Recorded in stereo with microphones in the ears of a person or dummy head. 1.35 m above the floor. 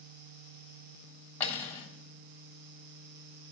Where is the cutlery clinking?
10° left (ahead or behind), 1.5 m.